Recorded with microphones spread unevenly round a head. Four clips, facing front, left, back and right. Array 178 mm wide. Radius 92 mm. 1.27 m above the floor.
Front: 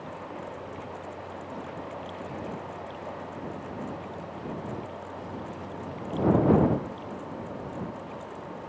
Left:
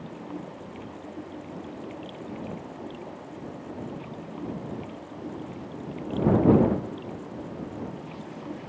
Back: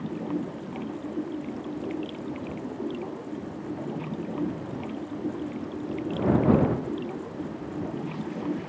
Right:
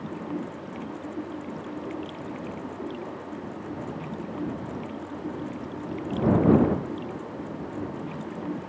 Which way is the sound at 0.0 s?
155° right.